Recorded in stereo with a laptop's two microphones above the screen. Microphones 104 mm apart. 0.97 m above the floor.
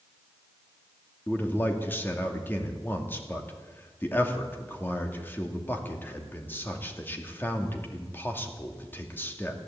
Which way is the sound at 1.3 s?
20° left (ahead or behind).